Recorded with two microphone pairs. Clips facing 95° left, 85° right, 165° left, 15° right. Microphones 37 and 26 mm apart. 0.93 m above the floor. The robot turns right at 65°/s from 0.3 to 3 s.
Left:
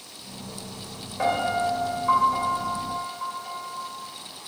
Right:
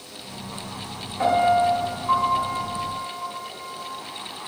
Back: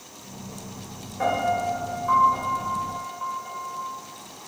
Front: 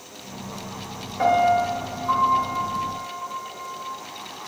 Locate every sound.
1.2 s a piano: 30° left, 1.5 m; by 3.9 s 150° left, 1.5 m